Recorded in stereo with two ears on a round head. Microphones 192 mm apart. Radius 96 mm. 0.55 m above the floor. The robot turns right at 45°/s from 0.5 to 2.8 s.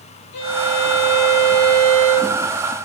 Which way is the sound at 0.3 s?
75° left.